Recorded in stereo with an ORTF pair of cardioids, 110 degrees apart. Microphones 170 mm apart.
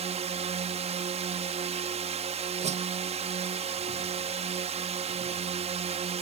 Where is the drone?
40° right.